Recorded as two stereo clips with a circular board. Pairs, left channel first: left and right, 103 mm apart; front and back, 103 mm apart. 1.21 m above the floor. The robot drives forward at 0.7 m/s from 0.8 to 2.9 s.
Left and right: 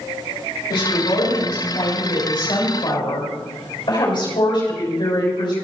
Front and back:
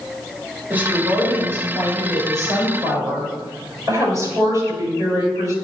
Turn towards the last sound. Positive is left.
turn(degrees=125)